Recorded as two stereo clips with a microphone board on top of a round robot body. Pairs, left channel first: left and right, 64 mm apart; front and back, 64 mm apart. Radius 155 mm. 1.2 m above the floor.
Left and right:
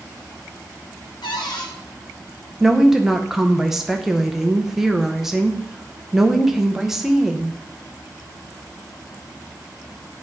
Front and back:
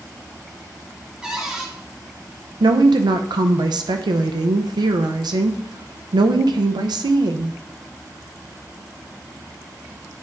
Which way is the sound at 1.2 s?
100° left.